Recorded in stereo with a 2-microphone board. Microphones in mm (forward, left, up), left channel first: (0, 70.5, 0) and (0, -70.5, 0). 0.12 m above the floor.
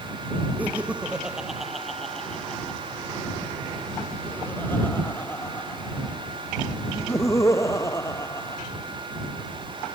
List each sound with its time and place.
0.6 s laughter: 10° right (ahead or behind); by 8.6 s 20° left (ahead or behind)